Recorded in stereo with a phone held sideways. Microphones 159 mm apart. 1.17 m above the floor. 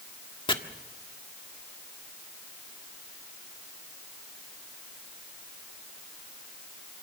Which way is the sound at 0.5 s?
30° left (ahead or behind).